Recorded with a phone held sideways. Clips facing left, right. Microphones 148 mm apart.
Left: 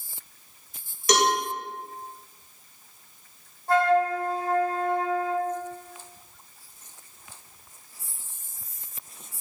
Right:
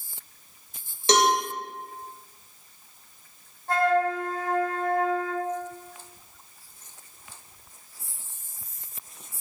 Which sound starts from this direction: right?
A cowbell, at 1.1 s.